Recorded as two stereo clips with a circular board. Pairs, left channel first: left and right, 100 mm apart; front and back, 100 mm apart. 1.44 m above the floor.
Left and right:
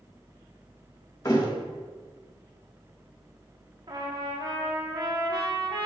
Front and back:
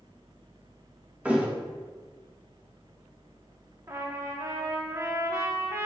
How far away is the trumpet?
About 1.2 m.